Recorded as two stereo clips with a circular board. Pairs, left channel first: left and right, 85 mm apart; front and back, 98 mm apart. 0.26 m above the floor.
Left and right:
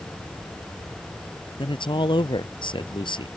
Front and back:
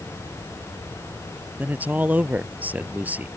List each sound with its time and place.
1.6 s a man speaking: 105° left